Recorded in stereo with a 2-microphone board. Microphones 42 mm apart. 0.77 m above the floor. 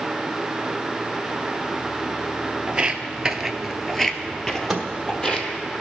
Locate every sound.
2.7 s footsteps: 20° right (ahead or behind), 0.9 m; by 5.5 s 20° left (ahead or behind), 1.4 m
4.7 s a microwave: 5° right (ahead or behind), 1.3 m